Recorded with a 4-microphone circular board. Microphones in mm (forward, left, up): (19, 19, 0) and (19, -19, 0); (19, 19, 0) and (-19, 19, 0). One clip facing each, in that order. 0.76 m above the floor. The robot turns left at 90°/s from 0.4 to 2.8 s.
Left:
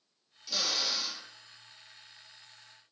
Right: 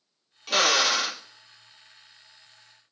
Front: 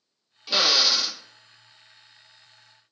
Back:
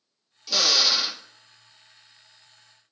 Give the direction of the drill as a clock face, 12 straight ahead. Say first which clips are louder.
Right 12 dB, front 1 dB; 2 o'clock.